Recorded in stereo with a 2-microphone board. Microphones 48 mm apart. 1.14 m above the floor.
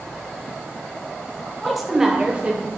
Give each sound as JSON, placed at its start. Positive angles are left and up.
{"t": 1.6, "sound": "a woman speaking", "side_deg": 5, "distance_m": 0.7}